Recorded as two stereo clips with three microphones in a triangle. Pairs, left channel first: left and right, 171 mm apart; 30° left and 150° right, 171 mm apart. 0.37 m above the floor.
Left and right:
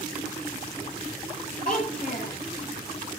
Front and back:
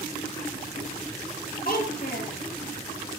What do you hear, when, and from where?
1.6 s a child speaking: 55° left, 8 m